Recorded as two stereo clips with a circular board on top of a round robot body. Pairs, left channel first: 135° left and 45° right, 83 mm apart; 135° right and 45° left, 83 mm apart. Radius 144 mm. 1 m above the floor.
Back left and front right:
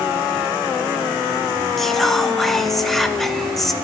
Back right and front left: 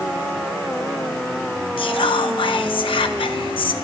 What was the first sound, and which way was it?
Whispering, 140° right.